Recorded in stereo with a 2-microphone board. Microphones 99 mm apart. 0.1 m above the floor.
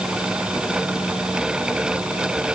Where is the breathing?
No breathing in this recording.